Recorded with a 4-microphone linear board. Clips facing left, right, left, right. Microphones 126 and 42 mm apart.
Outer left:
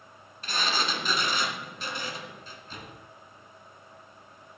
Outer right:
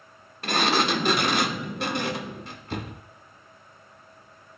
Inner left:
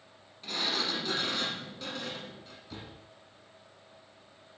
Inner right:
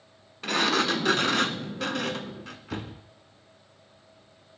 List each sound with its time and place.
0.4 s a sliding door: 65° right (ahead or behind), 0.6 m